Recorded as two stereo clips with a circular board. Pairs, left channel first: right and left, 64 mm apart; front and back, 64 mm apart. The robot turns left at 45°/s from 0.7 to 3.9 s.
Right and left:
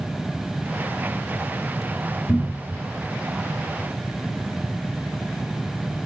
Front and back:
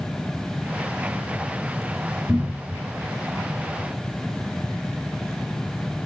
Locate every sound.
2.3 s a cupboard door: 125° right, 2 m; by 2.8 s 145° right, 2 m